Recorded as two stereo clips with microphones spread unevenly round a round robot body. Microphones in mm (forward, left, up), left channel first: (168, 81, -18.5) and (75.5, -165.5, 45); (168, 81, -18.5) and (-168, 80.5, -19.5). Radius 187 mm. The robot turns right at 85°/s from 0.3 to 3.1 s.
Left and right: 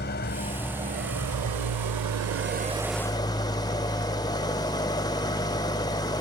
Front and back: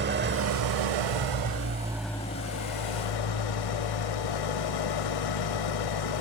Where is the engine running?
120° left, 0.7 m; by 6.2 s straight ahead, 0.7 m.